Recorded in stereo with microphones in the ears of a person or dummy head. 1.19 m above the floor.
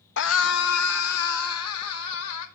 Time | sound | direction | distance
0.2 | a scream | 55° left (ahead or behind) | 0.7 m